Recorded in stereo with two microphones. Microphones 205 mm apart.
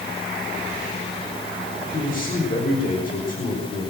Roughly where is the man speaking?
Left.